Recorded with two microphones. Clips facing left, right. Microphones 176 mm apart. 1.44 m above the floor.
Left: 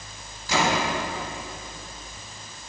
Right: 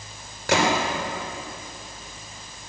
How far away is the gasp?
No gasp in this recording.